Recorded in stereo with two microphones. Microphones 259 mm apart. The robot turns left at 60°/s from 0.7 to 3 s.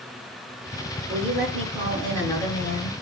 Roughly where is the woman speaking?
Behind right.